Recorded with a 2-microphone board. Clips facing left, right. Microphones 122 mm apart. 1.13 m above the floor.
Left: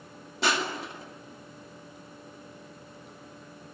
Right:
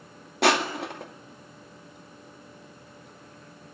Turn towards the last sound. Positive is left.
turn(degrees=-75)  # may be behind; listen again after turning